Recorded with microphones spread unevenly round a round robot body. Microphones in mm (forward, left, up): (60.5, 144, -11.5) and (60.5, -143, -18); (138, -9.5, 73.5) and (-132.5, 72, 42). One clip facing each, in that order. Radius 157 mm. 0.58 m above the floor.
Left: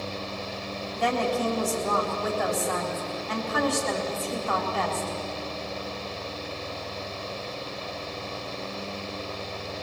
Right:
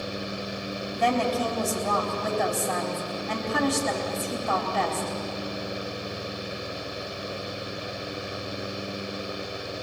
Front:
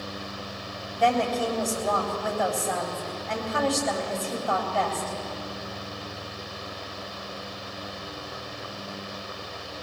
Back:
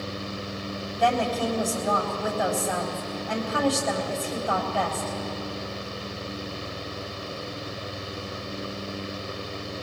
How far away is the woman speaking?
About 4 m.